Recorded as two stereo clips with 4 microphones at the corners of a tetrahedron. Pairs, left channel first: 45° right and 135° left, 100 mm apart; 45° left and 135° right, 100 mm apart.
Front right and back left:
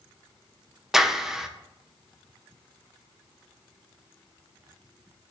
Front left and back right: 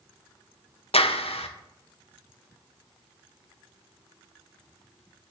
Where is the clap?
50° left, 0.9 m.